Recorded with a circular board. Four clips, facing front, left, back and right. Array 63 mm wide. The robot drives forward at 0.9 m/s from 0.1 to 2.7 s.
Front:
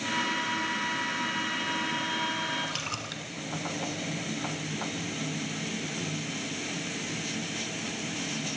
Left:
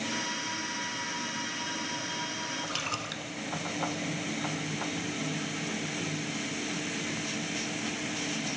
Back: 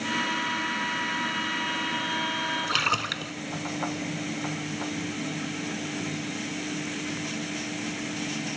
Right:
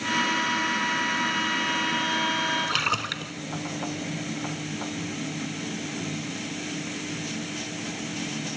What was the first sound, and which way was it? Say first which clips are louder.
A splash: right 8 dB, back 9 dB; 135° right.